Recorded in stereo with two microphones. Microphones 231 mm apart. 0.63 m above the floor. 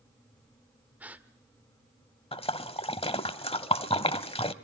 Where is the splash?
25° left (ahead or behind), 0.8 m.